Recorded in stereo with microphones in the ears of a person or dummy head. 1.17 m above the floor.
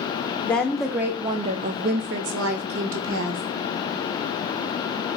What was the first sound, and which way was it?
A woman speaking, 10° left (ahead or behind).